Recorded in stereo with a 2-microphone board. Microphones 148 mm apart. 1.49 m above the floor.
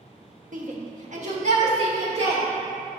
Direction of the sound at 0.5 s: 65° right (ahead or behind).